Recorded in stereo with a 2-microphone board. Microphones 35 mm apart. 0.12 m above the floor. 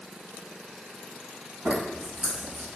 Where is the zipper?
25° right (ahead or behind), 1.3 m.